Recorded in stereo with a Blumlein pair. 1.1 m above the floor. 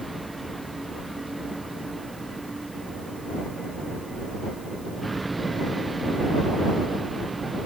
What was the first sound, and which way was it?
A vehicle, 5° right.